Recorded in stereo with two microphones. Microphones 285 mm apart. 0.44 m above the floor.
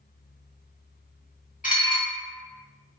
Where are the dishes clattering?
30° left (ahead or behind), 0.9 m.